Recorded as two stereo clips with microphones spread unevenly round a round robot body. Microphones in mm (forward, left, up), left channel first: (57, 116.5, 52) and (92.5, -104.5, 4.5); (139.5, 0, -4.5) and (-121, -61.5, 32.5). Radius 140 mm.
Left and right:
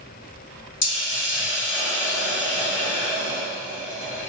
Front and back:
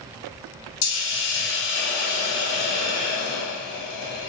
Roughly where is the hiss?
Ahead left.